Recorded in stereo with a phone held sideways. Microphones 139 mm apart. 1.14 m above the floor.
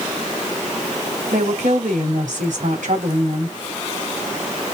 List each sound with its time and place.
1.3 s a woman speaking: 70° right (ahead or behind), 3 m